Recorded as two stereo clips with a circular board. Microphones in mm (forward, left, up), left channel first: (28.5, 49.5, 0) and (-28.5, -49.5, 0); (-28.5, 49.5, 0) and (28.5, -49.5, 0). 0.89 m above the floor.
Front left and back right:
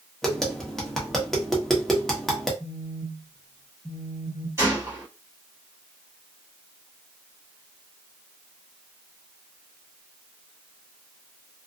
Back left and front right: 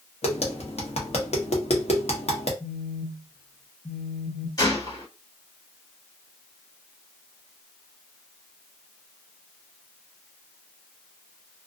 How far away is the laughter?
I don't hear laughter.